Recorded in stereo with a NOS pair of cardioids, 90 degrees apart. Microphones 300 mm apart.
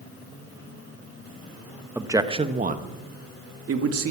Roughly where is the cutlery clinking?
No cutlery clinking in this recording.